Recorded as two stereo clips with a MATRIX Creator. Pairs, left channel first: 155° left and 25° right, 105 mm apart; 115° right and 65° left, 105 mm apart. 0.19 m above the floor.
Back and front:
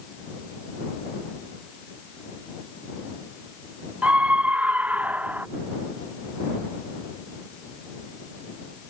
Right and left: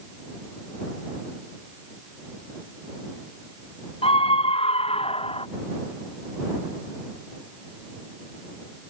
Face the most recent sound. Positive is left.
turn(degrees=-95)